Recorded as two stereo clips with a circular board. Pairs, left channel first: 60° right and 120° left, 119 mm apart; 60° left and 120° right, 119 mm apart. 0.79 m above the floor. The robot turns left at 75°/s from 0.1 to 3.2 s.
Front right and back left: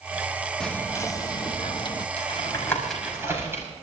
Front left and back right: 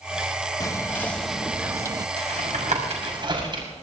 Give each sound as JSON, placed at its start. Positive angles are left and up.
{"t": 0.6, "sound": "whispering", "azimuth_deg": 20, "distance_m": 0.7}
{"t": 2.2, "sound": "tapping", "azimuth_deg": -90, "distance_m": 5.5}